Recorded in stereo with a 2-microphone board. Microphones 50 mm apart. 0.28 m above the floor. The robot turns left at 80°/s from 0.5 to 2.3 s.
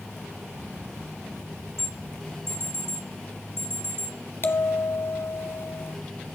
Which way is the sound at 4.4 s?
55° left (ahead or behind).